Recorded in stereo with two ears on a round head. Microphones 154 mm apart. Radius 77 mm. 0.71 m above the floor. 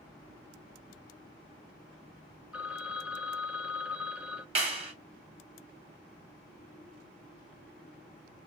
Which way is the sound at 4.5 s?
35° right (ahead or behind).